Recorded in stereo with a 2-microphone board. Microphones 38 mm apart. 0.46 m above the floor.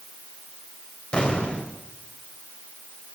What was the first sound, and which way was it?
An explosion, 30° left (ahead or behind).